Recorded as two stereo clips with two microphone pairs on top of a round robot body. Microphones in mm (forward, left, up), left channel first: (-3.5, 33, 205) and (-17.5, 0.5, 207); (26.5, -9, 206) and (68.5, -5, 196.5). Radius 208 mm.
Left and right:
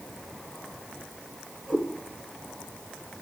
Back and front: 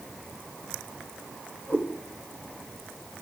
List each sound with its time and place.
1.7 s a cat meowing: 160° left, 7.5 m